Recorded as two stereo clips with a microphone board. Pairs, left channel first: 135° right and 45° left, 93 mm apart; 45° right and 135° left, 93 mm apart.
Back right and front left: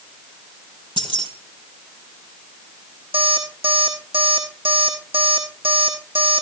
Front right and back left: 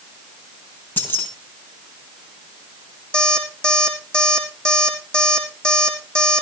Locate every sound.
1.0 s keys jangling: 20° left, 4 m
3.1 s an alarm clock: 35° left, 5 m